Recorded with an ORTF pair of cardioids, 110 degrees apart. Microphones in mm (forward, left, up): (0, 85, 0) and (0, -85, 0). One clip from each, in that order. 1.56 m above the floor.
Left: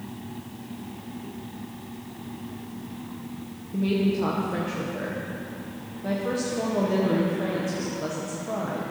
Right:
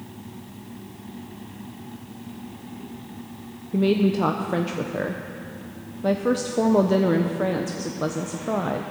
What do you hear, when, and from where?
3.7 s a woman speaking: 45° right, 1.0 m